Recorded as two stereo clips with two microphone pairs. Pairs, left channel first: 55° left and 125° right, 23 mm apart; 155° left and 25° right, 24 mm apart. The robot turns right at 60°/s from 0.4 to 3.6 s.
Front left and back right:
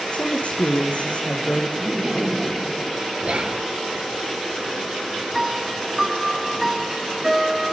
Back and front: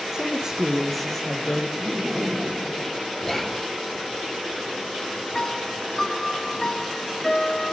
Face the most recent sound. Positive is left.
turn(degrees=175)